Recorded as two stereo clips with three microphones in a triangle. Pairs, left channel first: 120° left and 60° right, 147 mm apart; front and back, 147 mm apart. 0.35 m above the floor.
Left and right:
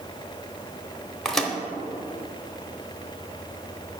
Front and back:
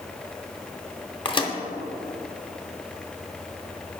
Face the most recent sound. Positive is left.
turn(degrees=35)